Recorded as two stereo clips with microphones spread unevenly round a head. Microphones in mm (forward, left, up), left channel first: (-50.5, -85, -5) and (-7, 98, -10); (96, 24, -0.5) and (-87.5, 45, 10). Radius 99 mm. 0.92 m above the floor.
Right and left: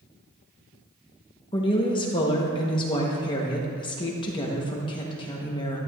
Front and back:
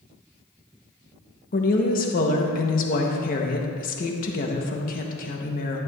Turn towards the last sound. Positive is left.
turn(degrees=-40)